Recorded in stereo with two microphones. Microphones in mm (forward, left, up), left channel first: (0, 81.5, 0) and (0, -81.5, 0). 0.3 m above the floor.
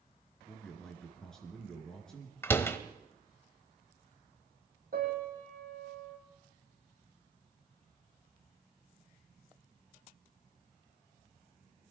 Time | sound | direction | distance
0.5 | a man speaking | 5° left (ahead or behind) | 3.5 m
2.4 | a door slam | 15° left (ahead or behind) | 0.8 m
4.9 | a piano | 65° right (ahead or behind) | 5.5 m